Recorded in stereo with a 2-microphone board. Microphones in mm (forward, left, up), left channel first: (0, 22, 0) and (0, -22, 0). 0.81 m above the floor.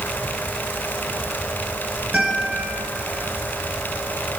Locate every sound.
2.1 s a guitar: 10° left (ahead or behind), 6.5 m